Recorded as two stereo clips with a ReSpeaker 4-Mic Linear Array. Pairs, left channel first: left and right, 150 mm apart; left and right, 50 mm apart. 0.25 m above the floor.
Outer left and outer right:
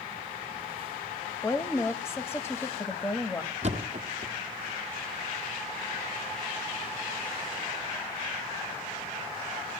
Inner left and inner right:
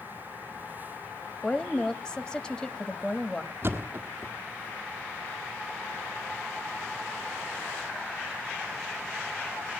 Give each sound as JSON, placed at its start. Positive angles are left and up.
{"t": 1.4, "sound": "a woman speaking", "side_deg": 15, "distance_m": 1.3}
{"t": 3.6, "sound": "a thud", "side_deg": -45, "distance_m": 1.4}